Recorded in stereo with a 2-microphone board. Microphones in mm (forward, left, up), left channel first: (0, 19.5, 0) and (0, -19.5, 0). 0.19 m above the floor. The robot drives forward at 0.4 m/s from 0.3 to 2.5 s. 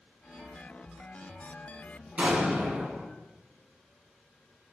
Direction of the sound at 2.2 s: 30° right (ahead or behind).